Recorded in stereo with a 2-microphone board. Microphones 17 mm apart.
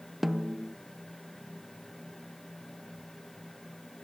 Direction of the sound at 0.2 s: 20° right (ahead or behind).